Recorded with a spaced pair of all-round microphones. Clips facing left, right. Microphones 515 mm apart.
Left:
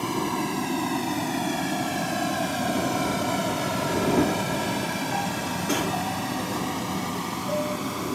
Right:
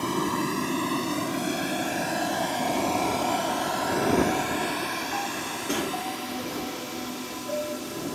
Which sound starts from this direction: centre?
A vehicle, at 0.0 s.